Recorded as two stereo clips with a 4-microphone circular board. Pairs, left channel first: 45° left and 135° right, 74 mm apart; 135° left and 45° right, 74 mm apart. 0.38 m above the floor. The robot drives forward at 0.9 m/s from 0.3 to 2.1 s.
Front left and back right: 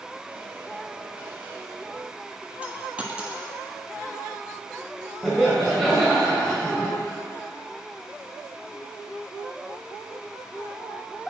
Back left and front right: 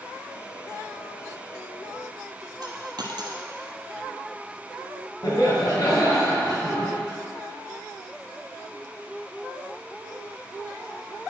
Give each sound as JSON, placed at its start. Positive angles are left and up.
{"t": 2.6, "sound": "a dropped coin", "azimuth_deg": -60, "distance_m": 1.1}
{"t": 5.2, "sound": "laughter", "azimuth_deg": 130, "distance_m": 1.9}